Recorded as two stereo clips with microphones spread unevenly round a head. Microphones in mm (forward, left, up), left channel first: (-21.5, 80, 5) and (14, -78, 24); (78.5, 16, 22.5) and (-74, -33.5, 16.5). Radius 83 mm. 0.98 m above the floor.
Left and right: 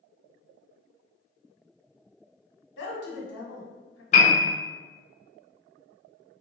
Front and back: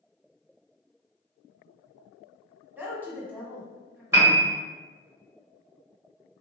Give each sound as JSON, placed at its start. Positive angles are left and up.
{"t": 2.8, "sound": "a woman speaking", "azimuth_deg": 120, "distance_m": 1.2}
{"t": 4.1, "sound": "a piano", "azimuth_deg": 130, "distance_m": 1.3}